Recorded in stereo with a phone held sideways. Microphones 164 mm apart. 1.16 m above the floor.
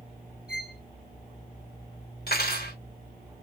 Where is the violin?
70° left (ahead or behind), 1.4 m.